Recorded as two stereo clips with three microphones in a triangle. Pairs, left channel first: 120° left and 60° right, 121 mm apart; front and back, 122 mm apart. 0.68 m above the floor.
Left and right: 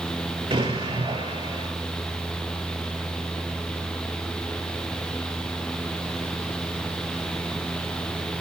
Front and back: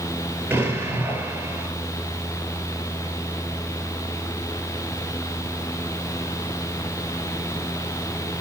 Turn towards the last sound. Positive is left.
turn(degrees=-105)